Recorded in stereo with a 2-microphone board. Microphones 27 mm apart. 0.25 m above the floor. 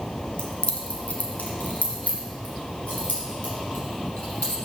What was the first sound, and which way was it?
Keys jangling, 40° left (ahead or behind).